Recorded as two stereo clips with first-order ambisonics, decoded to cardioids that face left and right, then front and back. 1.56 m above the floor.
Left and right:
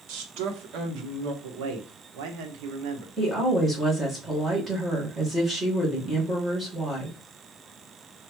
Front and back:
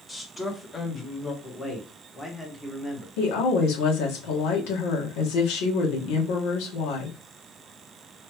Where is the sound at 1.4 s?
80° right, 1.4 m.